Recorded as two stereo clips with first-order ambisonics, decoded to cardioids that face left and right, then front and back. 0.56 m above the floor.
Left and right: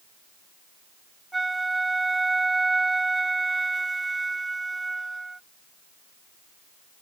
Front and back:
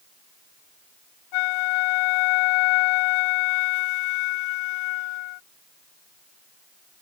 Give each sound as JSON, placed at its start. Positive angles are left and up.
{"t": 1.3, "sound": "a flute", "azimuth_deg": -10}